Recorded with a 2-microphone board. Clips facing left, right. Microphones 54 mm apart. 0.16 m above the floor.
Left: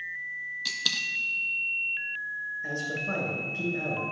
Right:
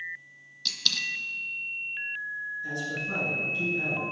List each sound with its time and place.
0.7 s a dropped coin: 10° left (ahead or behind), 0.6 m
2.6 s a man speaking: 40° left (ahead or behind), 2 m